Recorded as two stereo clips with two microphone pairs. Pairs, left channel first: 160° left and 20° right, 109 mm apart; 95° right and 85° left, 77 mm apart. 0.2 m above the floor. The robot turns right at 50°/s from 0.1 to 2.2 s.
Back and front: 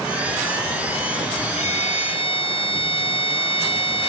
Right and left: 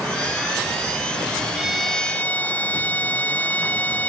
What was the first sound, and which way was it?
A violin, 160° left.